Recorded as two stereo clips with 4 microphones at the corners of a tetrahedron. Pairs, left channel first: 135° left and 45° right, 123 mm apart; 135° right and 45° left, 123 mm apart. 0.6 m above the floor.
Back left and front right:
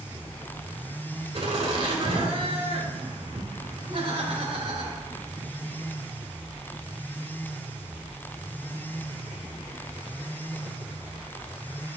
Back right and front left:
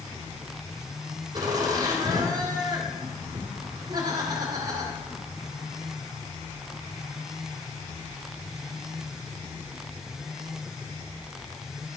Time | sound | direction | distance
1.3 | laughter | straight ahead | 2 m